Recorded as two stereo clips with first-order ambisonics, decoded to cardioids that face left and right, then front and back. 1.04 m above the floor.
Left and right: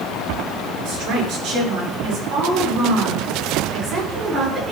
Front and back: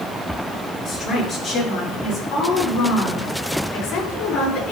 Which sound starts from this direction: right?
A woman speaking, at 0.8 s.